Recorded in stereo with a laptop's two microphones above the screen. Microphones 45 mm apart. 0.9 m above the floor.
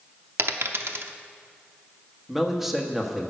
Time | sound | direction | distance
0.4 | a dropped coin | 60° right (ahead or behind) | 0.8 m
2.3 | a man speaking | 5° right (ahead or behind) | 1.2 m